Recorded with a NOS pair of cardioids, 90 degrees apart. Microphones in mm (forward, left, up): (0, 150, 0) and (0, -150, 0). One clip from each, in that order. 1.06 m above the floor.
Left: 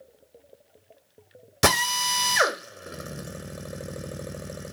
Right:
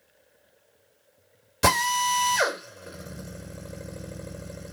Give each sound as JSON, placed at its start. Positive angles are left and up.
{"t": 1.6, "sound": "a drill", "azimuth_deg": 30, "distance_m": 1.3}